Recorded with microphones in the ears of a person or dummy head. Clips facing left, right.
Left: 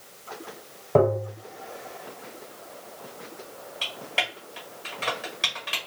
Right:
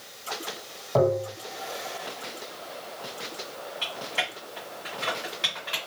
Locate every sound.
0.9 s tapping: 40° left (ahead or behind), 1.2 m
3.8 s typing on a keyboard: 50° left (ahead or behind), 1.1 m